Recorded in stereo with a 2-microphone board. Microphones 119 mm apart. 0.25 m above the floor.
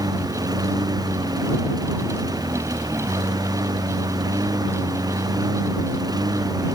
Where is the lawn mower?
35° right (ahead or behind).